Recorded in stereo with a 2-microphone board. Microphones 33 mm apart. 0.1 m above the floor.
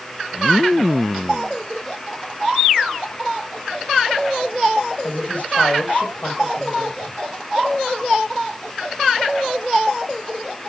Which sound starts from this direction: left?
A woman speaking, at 5.0 s.